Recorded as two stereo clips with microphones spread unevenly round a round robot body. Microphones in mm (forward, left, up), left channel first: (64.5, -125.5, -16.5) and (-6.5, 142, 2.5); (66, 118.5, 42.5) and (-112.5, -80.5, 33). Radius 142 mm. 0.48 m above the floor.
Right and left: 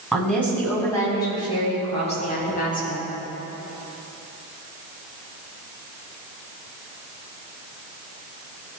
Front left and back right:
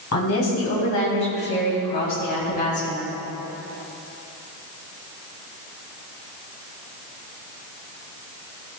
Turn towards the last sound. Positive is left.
turn(degrees=-20)